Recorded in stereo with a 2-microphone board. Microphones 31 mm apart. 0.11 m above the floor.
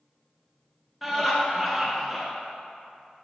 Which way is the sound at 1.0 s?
5° right (ahead or behind).